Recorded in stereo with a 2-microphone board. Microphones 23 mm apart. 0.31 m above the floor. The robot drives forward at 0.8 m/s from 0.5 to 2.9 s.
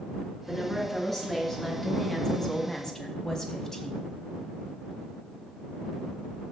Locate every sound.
0.5 s a woman speaking: 10° left (ahead or behind), 3.5 m; by 4.0 s 20° left (ahead or behind), 1.7 m